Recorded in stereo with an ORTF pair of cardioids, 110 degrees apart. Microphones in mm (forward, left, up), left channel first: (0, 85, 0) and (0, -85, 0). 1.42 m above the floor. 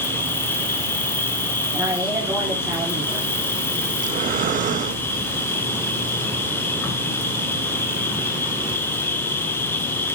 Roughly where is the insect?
Ahead.